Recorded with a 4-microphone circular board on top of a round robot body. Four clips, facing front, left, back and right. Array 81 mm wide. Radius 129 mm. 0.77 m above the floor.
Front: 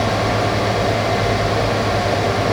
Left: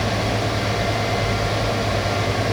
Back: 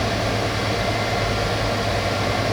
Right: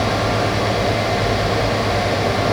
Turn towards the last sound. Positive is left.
No sound to turn to.